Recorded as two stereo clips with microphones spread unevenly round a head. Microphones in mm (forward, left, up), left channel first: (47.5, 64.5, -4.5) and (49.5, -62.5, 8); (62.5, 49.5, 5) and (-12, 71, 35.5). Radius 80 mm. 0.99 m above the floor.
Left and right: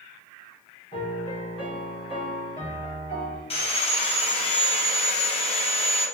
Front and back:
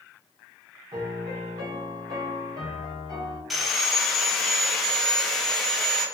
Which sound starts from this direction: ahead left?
Sawing, at 3.5 s.